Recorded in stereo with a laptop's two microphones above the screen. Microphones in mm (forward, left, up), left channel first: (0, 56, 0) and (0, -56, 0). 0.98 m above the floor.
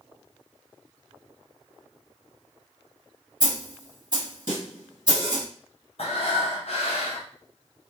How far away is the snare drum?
About 1.3 m.